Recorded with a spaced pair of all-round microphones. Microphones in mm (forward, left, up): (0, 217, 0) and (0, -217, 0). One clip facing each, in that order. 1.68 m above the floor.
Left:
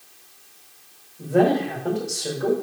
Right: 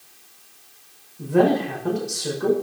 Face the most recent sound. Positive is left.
turn(degrees=-20)  # may be behind; listen again after turning